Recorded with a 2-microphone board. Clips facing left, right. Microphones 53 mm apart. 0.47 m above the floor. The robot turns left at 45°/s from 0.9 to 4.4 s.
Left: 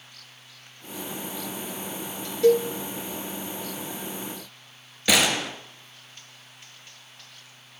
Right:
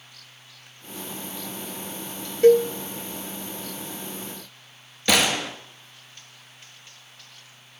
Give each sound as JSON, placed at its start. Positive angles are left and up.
{"t": 2.4, "sound": "a cowbell", "side_deg": -40, "distance_m": 0.6}
{"t": 5.1, "sound": "a gunshot", "side_deg": 5, "distance_m": 1.7}